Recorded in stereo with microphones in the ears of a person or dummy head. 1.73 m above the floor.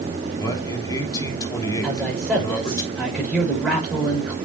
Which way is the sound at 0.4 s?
20° left (ahead or behind).